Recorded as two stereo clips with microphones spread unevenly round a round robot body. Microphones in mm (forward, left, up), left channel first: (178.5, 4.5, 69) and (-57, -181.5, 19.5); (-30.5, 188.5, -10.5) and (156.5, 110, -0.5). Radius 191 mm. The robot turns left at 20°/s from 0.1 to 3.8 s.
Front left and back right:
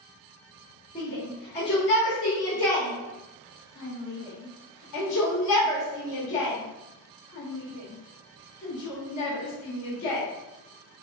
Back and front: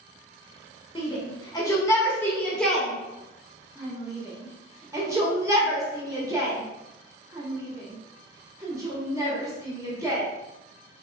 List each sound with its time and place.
0.9 s a shout: 105° left, 1.3 m; by 10.2 s 50° left, 1.3 m